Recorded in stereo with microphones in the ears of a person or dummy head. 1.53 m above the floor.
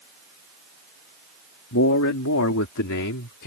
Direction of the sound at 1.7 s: 75° left (ahead or behind).